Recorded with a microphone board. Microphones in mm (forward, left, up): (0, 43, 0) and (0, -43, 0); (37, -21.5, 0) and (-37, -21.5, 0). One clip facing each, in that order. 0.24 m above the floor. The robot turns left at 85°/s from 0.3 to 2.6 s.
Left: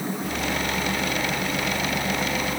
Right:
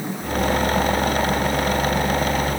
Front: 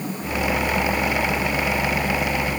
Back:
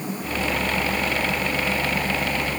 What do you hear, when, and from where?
Only background noise.